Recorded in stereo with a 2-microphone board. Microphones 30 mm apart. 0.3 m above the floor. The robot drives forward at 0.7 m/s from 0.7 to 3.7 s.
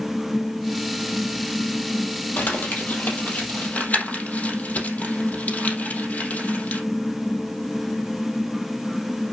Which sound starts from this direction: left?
Crumpling, at 2.4 s.